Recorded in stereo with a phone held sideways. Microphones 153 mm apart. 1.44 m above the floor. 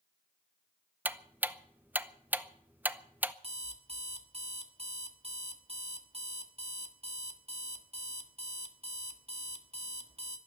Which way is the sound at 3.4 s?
40° right (ahead or behind).